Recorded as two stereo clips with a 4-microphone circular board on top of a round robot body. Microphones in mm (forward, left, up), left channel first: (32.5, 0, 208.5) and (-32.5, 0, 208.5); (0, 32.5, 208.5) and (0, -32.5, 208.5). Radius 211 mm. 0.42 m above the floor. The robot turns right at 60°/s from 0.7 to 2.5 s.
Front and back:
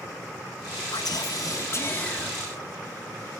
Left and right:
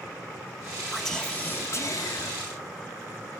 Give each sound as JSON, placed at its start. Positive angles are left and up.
{"t": 0.9, "sound": "whispering", "azimuth_deg": 0, "distance_m": 3.5}